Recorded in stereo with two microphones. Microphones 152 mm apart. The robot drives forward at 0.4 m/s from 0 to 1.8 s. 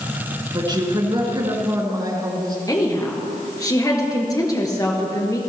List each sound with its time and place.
0.5 s a woman speaking: 30° right (ahead or behind), 2 m; by 2.6 s 25° right (ahead or behind), 2.5 m
2.7 s a woman speaking: 25° left (ahead or behind), 2.5 m